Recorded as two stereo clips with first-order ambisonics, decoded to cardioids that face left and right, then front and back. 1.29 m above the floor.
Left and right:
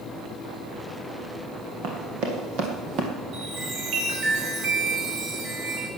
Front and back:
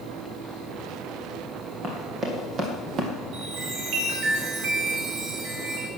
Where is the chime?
135° right, 3 m.